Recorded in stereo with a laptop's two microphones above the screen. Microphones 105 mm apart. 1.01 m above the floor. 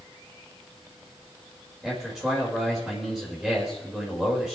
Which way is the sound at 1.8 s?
5° right (ahead or behind).